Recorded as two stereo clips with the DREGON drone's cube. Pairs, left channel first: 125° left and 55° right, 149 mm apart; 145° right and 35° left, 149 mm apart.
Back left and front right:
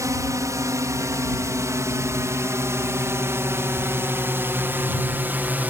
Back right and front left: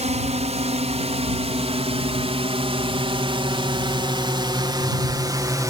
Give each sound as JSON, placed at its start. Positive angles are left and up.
{"t": 0.0, "sound": "a drone", "azimuth_deg": 10}